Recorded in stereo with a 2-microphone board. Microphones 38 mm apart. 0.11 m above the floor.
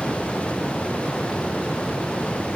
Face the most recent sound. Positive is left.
No sound to turn to.